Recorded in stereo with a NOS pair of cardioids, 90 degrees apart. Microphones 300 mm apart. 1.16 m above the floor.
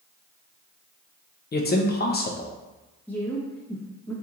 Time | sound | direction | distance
1.5 | a man speaking | 35° left | 0.7 m
3.1 | a woman speaking | 5° left | 1.0 m